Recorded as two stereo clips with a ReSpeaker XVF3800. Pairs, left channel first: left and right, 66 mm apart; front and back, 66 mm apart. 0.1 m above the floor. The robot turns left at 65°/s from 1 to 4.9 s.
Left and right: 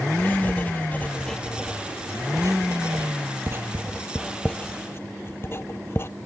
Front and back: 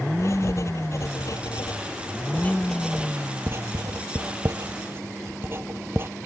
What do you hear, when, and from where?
0.2 s writing: 30° left; by 6.1 s 135° left